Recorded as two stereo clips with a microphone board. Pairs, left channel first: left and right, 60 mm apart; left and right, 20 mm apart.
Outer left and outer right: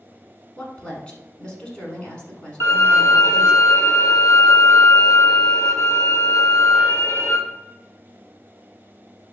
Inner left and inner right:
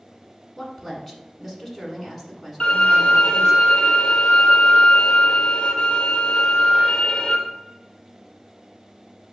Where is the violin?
60° left (ahead or behind), 1.4 m.